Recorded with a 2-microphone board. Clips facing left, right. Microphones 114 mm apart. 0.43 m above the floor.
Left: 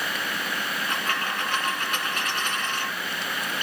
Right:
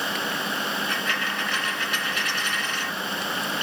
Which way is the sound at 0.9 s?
50° left (ahead or behind).